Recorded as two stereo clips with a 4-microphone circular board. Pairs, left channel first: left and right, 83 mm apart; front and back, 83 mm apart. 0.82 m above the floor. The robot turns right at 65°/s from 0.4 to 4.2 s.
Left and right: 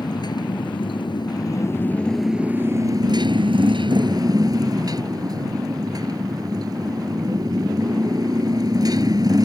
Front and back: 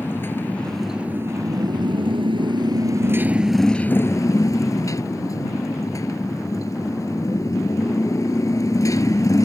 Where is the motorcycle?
60° left; by 9.5 s 50° right.